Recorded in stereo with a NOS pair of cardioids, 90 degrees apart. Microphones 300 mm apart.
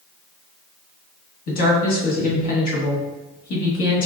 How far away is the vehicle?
I don't hear a vehicle.